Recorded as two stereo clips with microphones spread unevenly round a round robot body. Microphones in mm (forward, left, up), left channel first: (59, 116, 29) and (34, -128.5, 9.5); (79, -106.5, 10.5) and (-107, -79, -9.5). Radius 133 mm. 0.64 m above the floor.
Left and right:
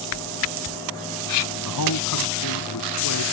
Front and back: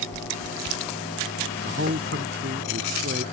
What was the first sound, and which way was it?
A man speaking, 115° left.